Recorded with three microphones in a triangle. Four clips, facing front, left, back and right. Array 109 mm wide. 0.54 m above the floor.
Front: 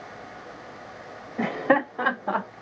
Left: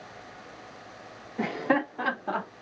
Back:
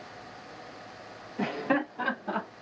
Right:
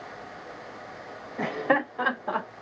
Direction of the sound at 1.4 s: 20° right.